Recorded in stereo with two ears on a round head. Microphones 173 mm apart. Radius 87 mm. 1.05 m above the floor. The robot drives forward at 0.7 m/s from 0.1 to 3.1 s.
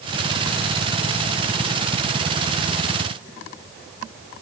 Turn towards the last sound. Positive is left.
No sound to turn to.